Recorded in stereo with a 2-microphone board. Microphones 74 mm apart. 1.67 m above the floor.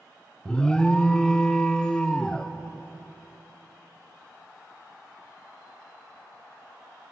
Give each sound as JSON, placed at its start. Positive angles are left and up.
{"t": 0.5, "sound": "an alarm", "side_deg": 15, "distance_m": 1.4}